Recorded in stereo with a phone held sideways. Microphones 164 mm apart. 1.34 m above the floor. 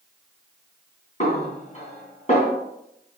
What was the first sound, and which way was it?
A snare drum, 50° left (ahead or behind).